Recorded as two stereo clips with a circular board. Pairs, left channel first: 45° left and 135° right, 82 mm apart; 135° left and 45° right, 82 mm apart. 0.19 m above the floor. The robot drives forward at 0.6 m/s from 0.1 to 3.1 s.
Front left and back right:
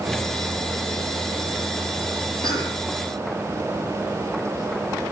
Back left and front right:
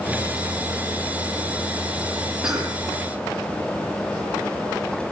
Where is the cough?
35° left, 7.5 m.